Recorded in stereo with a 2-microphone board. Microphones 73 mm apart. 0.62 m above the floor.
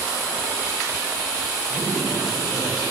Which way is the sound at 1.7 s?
10° right (ahead or behind).